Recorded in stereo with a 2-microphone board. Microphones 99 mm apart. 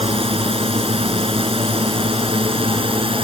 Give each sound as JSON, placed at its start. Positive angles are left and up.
{"t": 0.0, "sound": "a drone", "side_deg": -75}